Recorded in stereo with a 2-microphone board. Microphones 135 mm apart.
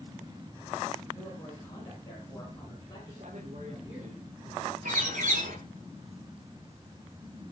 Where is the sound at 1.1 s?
25° left (ahead or behind), 9.5 m; by 4.1 s 35° left (ahead or behind), 12 m.